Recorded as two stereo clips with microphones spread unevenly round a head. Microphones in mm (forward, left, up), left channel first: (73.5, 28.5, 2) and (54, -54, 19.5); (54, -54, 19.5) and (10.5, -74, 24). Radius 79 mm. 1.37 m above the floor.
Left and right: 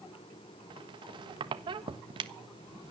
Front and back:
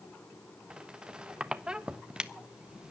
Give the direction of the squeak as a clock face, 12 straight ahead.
3 o'clock.